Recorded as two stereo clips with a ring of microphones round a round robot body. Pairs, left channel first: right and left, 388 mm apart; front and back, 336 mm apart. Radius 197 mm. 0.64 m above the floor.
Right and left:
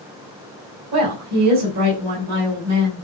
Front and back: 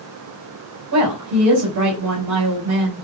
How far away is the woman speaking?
About 5.5 m.